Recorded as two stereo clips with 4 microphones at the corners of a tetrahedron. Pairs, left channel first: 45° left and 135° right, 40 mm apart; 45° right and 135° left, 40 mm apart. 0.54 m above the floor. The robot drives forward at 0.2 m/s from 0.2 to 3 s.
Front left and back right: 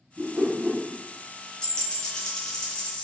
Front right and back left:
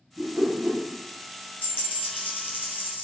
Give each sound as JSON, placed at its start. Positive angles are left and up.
{"t": 0.2, "sound": "a whoosh", "azimuth_deg": 160, "distance_m": 1.3}
{"t": 1.6, "sound": "a dropped coin", "azimuth_deg": -25, "distance_m": 1.5}